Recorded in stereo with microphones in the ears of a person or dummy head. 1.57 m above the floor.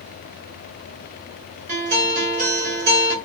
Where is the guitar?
45° right (ahead or behind), 1.6 m.